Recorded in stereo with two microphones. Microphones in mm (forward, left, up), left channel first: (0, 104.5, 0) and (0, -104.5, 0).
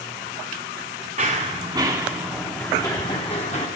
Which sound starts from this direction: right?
Running footsteps, at 1.2 s.